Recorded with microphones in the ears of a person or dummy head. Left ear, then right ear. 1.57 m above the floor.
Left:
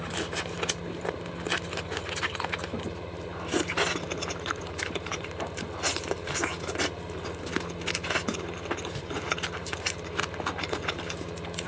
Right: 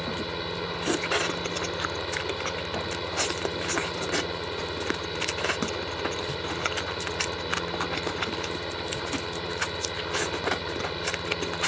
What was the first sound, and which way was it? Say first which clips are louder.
A fan: right 1 dB; 70° right (ahead or behind).